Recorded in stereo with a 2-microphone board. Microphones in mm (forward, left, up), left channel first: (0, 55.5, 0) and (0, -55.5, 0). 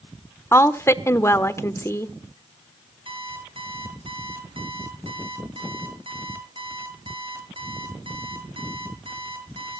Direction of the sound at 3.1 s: 50° right (ahead or behind).